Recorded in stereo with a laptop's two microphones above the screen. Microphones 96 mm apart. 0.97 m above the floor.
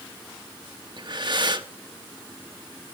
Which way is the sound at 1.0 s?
50° right (ahead or behind).